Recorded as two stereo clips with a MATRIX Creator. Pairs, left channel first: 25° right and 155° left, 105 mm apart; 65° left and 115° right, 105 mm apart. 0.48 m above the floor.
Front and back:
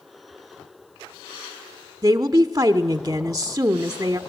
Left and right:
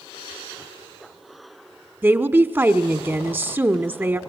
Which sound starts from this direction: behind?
A woman speaking, at 2.0 s.